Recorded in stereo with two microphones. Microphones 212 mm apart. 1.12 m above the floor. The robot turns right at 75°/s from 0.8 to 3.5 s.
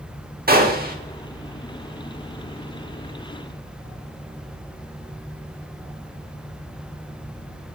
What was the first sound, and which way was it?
A gunshot, 40° right (ahead or behind).